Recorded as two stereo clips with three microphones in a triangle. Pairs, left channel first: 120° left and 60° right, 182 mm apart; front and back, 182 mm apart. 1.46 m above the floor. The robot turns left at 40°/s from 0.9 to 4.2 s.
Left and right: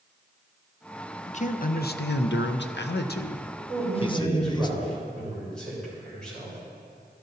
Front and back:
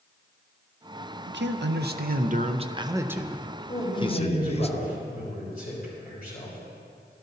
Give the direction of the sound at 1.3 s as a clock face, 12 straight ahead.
6 o'clock.